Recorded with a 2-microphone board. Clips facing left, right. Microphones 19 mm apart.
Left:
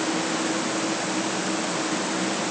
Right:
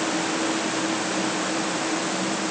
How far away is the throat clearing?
No throat clearing in this recording.